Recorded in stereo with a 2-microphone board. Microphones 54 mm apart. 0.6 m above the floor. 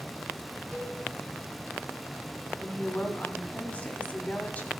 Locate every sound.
0.7 s a cowbell: 20° right (ahead or behind), 5.5 m
2.6 s a woman speaking: 30° left (ahead or behind), 1.4 m